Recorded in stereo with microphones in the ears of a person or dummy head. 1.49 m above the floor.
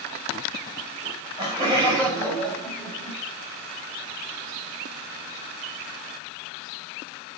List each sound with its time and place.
1.0 s laughter: 20° right (ahead or behind), 6.5 m; by 3.2 s 15° right (ahead or behind), 8.5 m